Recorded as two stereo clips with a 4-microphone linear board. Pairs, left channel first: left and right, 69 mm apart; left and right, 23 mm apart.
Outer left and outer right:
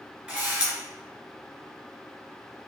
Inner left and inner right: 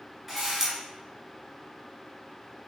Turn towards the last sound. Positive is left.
turn(degrees=-15)  # may be behind; listen again after turning